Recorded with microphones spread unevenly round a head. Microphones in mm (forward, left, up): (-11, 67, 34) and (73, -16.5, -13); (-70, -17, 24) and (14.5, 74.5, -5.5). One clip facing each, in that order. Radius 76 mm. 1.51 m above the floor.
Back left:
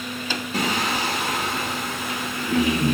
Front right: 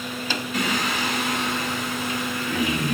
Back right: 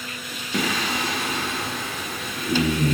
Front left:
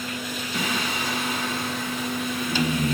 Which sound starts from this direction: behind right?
Singing, at 0.5 s.